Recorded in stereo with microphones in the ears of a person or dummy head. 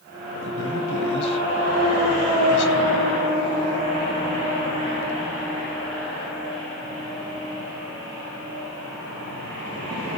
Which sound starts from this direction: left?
A man speaking, at 0.3 s.